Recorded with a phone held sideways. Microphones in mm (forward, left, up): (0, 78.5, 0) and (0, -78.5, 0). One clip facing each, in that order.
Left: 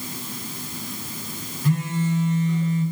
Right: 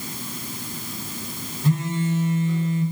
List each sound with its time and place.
1.6 s a phone buzzing: 25° right (ahead or behind), 1.0 m